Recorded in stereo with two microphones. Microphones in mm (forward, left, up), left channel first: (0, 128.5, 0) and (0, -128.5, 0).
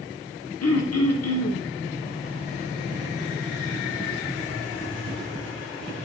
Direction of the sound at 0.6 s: 75° left (ahead or behind).